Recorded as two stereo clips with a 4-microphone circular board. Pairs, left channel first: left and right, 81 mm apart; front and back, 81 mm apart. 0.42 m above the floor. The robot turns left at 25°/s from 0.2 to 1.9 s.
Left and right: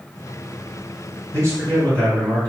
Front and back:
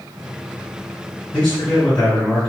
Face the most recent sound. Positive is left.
turn(degrees=-80)